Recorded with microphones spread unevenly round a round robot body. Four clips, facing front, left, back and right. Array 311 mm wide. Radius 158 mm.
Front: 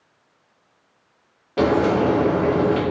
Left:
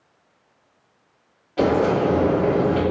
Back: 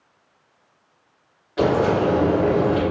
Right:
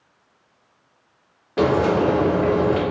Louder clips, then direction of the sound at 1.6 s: Right 1 dB, front 1 dB; 50° right.